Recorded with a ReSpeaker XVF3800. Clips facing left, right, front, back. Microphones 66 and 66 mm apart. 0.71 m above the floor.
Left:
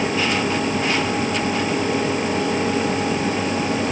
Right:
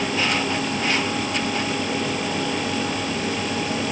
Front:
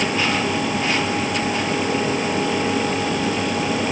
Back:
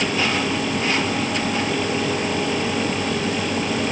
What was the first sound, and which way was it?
Only background noise.